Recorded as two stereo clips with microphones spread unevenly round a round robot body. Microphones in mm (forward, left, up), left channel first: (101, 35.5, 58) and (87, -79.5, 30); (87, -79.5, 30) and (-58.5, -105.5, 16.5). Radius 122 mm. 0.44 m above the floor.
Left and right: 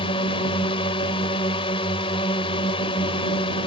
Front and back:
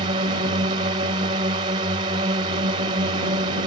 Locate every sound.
0.0 s a drone: 135° left